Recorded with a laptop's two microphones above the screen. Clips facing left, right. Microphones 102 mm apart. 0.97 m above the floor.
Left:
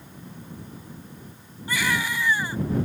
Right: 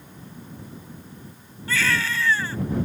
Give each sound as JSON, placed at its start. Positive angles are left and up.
{"t": 1.7, "sound": "a baby crying", "side_deg": 15}